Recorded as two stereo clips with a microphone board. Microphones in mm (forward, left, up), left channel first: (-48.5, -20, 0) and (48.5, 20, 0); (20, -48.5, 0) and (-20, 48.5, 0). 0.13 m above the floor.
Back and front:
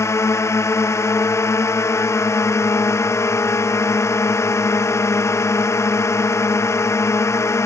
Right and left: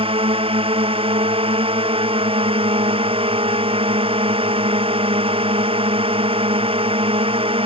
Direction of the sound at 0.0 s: 140° left.